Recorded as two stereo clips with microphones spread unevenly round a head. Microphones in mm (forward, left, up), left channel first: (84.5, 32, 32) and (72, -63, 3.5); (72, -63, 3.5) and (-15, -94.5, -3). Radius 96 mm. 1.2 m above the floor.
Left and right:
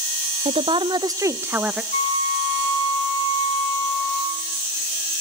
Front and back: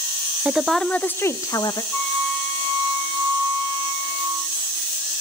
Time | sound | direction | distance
0.5 | a woman speaking | 85° right | 0.9 m
1.9 | a flute | 100° left | 6.5 m